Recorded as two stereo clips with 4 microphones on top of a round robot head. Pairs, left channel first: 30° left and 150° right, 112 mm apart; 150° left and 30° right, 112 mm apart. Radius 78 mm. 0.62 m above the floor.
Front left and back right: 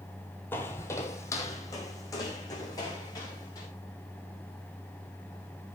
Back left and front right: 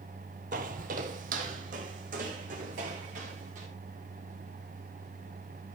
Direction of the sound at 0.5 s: 40° right.